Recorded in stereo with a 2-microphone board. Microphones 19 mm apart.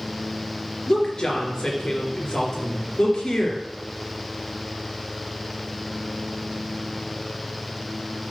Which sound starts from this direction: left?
A woman speaking, at 0.9 s.